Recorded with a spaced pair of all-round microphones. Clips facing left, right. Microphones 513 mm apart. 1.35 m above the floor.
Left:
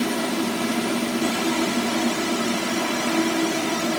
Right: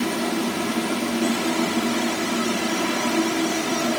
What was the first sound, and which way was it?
Only background noise.